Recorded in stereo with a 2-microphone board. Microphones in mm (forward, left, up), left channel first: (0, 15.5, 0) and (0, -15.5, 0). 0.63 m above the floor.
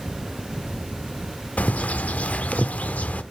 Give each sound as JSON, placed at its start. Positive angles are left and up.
{"t": 1.6, "sound": "a bird", "side_deg": 55, "distance_m": 0.5}